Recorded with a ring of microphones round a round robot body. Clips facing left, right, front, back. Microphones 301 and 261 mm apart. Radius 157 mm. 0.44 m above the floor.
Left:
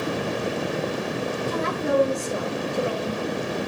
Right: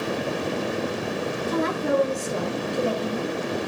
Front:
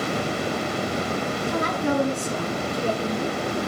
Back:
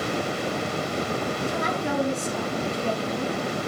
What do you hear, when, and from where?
1.5 s a woman speaking: 5° right, 6.5 m; by 3.4 s 10° left, 6 m